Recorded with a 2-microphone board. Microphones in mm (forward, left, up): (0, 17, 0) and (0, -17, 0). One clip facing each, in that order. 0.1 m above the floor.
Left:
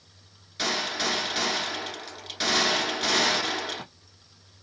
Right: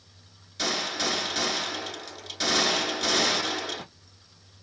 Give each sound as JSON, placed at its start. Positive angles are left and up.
{"t": 0.6, "sound": "a gunshot", "side_deg": 20, "distance_m": 1.0}